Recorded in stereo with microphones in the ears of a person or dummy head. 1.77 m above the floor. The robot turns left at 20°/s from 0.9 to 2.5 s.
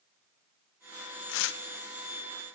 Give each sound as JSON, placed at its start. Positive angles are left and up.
{"t": 1.3, "sound": "tearing paper", "side_deg": 75, "distance_m": 1.1}